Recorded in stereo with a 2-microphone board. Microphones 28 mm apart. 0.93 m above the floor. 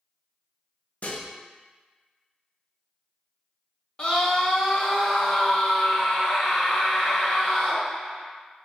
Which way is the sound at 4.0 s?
25° left (ahead or behind).